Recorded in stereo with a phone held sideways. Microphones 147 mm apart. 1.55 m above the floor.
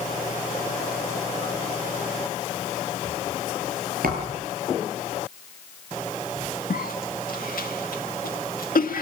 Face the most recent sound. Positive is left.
turn(degrees=75)  # may be behind; listen again after turning